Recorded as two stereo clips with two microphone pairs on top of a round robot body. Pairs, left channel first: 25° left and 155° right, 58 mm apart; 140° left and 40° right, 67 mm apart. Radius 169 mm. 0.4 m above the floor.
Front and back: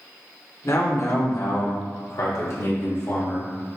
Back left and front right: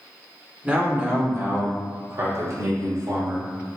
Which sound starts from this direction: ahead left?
A man speaking, at 0.6 s.